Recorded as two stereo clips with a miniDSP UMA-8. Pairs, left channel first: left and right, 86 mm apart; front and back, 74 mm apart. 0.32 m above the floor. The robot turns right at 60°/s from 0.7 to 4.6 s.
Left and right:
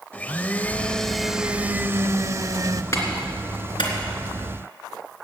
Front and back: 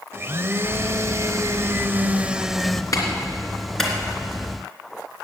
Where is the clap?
35° left, 3 m; by 3.9 s 95° left, 3 m.